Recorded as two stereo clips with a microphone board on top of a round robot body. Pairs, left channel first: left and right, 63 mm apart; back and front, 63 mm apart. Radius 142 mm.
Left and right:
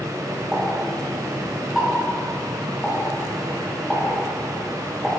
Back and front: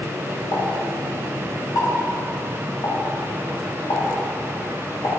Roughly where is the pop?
Behind.